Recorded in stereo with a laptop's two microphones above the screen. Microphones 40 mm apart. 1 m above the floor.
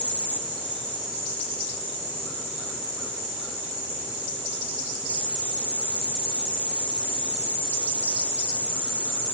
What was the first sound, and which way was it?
Only background noise.